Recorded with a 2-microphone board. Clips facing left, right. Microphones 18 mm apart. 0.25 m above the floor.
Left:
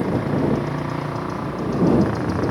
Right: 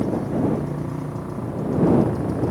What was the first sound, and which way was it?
A motorcycle, 50° left (ahead or behind).